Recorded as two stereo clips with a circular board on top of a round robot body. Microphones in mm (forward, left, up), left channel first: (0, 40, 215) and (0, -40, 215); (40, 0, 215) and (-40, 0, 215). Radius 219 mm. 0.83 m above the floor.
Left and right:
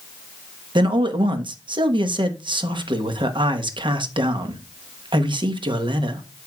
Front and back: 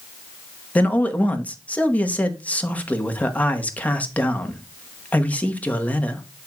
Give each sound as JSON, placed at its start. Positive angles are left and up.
{"t": 0.8, "sound": "a man speaking", "azimuth_deg": -70, "distance_m": 1.4}